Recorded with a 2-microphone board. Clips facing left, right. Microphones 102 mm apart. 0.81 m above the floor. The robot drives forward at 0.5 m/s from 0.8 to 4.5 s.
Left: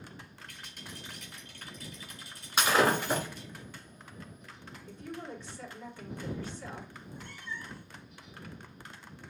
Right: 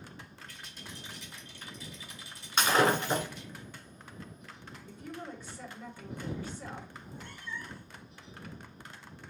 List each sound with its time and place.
0.5 s a rattle: 60° left (ahead or behind), 2.5 m; by 3.6 s 40° left (ahead or behind), 3 m
2.6 s breaking glass: 5° left (ahead or behind), 2 m
4.9 s a woman speaking: 10° right (ahead or behind), 2.5 m
7.0 s a cat meowing: 40° right (ahead or behind), 1.1 m